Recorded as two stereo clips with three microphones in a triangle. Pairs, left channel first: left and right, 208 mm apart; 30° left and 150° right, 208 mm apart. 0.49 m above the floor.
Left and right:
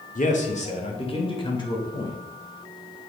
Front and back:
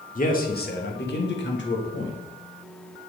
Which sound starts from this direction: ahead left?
A man speaking, at 0.1 s.